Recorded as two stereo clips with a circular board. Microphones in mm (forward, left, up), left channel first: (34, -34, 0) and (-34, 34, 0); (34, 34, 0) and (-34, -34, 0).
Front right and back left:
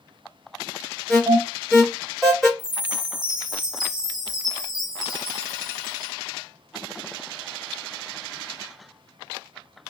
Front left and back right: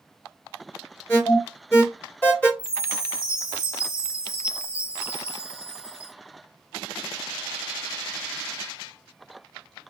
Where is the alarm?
40° left, 1.8 m.